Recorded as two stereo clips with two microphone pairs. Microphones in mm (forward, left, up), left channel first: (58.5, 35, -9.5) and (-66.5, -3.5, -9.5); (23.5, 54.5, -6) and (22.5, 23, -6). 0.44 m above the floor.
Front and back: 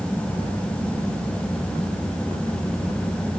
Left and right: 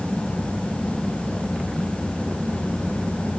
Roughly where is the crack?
I don't hear a crack.